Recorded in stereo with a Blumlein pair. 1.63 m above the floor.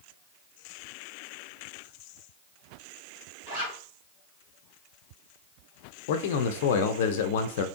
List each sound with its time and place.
3.5 s a zipper: 55° right, 2.5 m
6.1 s a man speaking: 50° left, 0.5 m